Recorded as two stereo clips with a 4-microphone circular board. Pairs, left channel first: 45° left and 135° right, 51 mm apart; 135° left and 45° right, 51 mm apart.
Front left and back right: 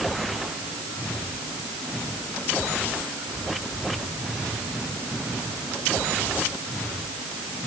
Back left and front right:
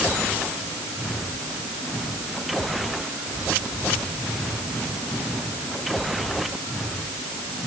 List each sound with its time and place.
Only background noise.